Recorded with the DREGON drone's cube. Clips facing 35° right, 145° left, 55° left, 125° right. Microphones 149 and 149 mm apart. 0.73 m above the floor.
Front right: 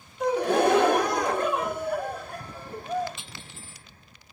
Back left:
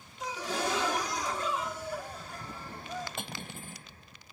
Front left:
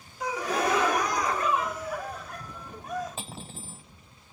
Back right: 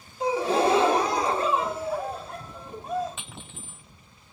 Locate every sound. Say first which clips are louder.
0.2 s a gasp: front right 12 dB, back right 6 dB; 65° right
3.2 s cutlery clinking: back left 5 dB, front left 3 dB; 110° left